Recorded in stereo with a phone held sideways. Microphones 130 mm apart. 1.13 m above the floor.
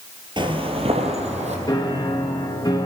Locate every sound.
0.4 s footsteps: 40° right (ahead or behind), 1.4 m; by 1.6 s 60° right (ahead or behind), 2.5 m
1.7 s a piano: 30° left (ahead or behind), 1.5 m